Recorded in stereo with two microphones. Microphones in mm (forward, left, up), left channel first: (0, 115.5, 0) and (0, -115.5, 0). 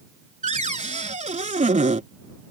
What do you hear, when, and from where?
0.4 s a cupboard door: 30° right (ahead or behind)